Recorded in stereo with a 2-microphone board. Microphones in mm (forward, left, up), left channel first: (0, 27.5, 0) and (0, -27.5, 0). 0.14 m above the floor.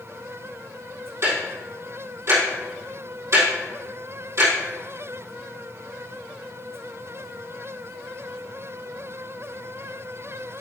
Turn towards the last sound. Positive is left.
turn(degrees=-55)  # may be behind; listen again after turning